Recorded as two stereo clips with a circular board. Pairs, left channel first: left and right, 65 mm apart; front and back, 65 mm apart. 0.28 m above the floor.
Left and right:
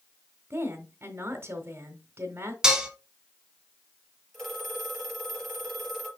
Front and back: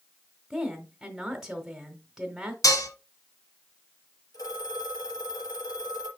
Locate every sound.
0.5 s a woman speaking: 95° right, 1.5 m
2.6 s dishes clattering: 10° right, 1.6 m
4.3 s a phone ringing: 5° left, 4.5 m